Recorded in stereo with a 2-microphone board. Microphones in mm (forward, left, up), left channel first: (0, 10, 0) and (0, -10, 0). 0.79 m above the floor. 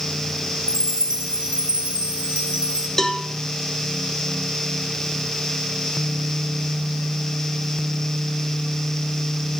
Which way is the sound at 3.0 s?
25° left (ahead or behind).